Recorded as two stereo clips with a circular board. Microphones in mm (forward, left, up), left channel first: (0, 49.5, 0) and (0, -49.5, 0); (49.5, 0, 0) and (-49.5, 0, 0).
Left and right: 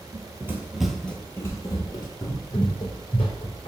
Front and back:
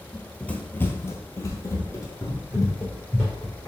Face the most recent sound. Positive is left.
turn(degrees=60)